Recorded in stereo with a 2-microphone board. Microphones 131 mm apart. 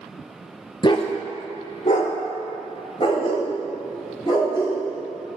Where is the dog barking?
35° left (ahead or behind), 0.6 m.